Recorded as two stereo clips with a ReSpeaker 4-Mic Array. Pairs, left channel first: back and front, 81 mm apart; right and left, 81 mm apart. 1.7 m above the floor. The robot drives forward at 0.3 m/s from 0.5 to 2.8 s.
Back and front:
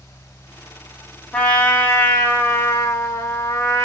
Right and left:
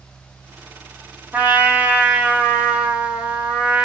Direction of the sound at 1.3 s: 125° left.